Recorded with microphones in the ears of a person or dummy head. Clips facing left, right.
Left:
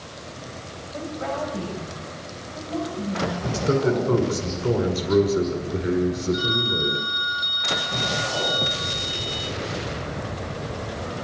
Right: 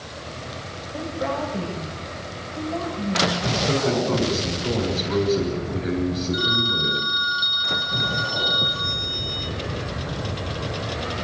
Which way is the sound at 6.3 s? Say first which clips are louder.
Even; 20° right (ahead or behind).